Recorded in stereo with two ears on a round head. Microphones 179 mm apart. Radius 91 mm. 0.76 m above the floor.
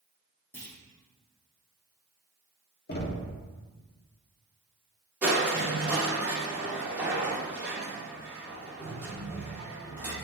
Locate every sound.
0.5 s a clunk: 10° left (ahead or behind), 2 m
2.9 s knocking: 50° left (ahead or behind), 1.2 m
5.2 s crushing: 10° right (ahead or behind), 1.7 m